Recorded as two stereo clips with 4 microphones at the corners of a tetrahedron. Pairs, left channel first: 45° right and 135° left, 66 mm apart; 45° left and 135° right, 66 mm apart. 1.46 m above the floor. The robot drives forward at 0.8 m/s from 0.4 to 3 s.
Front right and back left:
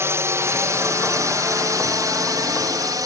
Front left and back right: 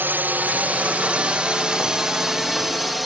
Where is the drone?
170° left; by 3.1 s 135° left.